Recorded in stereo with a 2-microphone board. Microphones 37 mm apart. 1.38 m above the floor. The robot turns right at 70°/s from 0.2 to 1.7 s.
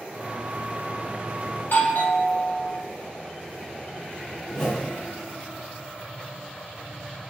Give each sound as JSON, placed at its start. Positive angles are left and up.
{"t": 1.6, "sound": "a doorbell", "side_deg": 50, "distance_m": 1.6}
{"t": 4.5, "sound": "a whoosh", "side_deg": 15, "distance_m": 1.4}